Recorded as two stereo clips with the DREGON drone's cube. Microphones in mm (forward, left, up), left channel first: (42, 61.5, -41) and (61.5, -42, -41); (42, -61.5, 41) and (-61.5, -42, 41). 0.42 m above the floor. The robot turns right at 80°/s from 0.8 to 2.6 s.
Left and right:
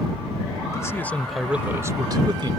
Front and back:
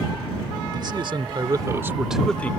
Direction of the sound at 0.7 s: 145° left.